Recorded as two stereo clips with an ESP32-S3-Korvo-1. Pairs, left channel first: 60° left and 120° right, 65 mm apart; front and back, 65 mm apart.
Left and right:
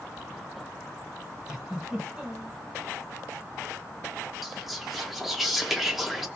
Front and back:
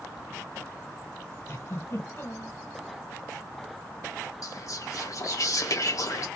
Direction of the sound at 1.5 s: 45° right.